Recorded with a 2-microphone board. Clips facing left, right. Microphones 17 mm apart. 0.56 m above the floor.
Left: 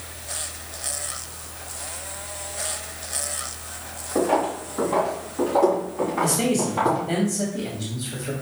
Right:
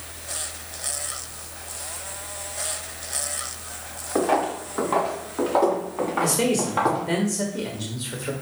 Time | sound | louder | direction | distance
4.2 | footsteps | even | 80° right | 3.5 m
6.2 | a man speaking | even | 55° right (ahead or behind) | 1.5 m